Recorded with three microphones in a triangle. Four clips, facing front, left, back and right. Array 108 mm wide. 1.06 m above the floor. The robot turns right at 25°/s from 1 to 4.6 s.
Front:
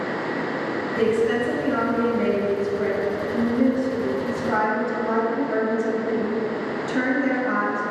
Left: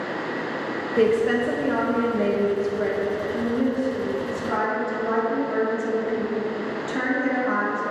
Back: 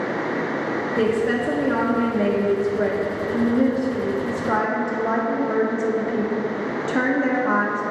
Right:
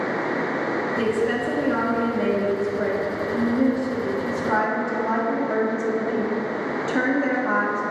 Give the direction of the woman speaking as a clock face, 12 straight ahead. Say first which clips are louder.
Left 6 dB, front 1 dB; 8 o'clock.